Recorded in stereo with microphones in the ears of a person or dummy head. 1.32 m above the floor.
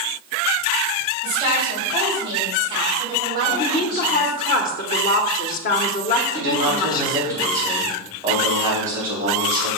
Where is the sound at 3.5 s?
40° left (ahead or behind), 1.2 m.